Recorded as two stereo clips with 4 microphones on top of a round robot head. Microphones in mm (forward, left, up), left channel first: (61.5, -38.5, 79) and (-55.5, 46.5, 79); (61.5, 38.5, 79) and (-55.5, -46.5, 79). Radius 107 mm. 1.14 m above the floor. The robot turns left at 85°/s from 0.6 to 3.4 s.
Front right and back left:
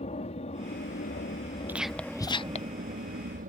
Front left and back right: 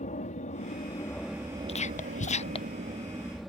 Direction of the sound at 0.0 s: 5° left.